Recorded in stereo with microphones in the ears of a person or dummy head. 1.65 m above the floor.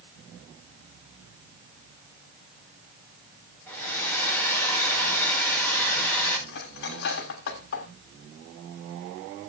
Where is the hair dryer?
10° left (ahead or behind), 6.5 m.